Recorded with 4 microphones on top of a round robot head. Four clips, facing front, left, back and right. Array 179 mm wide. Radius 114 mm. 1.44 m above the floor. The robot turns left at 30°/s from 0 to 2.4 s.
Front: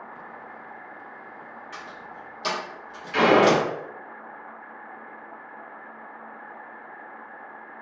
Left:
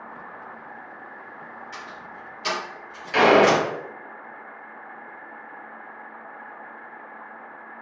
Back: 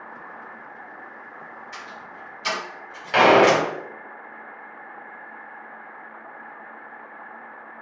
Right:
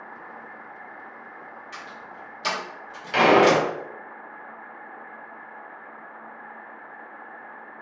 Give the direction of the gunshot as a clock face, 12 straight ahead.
6 o'clock.